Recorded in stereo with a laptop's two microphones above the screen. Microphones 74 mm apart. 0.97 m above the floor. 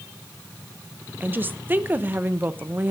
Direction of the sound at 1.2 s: 25° right (ahead or behind).